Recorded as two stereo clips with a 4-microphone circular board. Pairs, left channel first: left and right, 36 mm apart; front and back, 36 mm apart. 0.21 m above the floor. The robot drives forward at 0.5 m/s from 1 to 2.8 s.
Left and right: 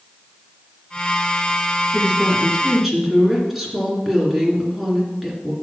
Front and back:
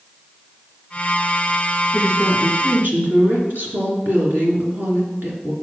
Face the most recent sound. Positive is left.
turn(degrees=-175)